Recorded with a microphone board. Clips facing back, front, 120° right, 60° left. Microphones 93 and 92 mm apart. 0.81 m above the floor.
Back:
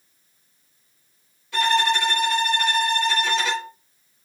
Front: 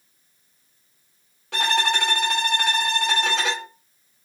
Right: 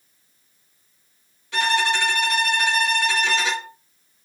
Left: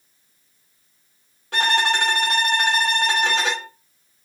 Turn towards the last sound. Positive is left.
turn(degrees=20)